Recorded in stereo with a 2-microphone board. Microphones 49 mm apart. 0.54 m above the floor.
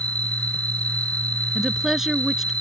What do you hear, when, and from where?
0.0 s an insect: 30° left (ahead or behind)
1.6 s a woman speaking: 10° right (ahead or behind)